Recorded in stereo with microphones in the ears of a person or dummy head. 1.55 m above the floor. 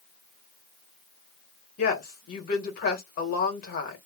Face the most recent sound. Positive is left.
turn(degrees=45)  # may be behind; listen again after turning